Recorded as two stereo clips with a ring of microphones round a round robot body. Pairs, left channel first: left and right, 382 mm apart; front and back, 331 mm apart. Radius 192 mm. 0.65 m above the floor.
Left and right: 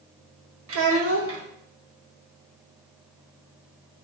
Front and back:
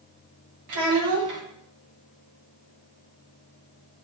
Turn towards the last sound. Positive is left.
turn(degrees=-145)